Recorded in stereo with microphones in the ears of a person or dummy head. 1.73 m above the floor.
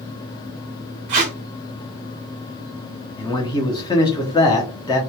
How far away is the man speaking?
About 0.7 m.